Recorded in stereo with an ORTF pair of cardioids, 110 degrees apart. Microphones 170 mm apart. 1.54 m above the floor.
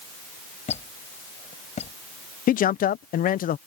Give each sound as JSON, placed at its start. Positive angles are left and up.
{"t": 0.7, "sound": "a squeak", "azimuth_deg": 40}
{"t": 2.5, "sound": "a man speaking", "azimuth_deg": 50}